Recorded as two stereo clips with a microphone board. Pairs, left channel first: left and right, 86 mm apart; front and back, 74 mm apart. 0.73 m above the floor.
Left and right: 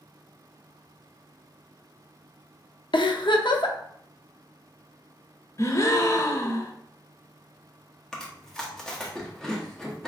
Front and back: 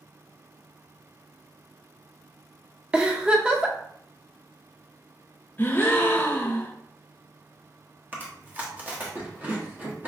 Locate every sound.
2.9 s a giggle: 105° left, 0.5 m
5.6 s a gasp: 50° left, 0.6 m
8.1 s chewing: 165° left, 1.0 m